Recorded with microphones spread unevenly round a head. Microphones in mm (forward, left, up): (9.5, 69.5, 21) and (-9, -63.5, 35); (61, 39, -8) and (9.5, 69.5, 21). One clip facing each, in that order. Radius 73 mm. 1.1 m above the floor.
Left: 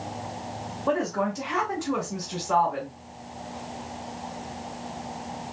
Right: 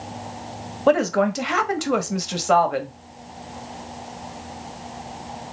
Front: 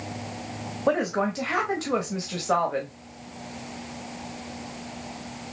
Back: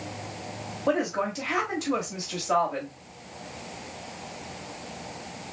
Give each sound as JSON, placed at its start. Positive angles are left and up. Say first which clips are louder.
{"t": 0.9, "sound": "a woman speaking", "louder": "right 8 dB, front 2 dB", "azimuth_deg": -95, "distance_m": 1.1}